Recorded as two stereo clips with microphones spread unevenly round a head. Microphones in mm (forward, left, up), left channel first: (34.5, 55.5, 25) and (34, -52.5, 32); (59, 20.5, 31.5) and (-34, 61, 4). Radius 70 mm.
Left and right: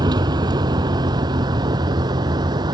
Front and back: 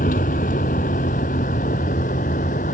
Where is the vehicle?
40° right.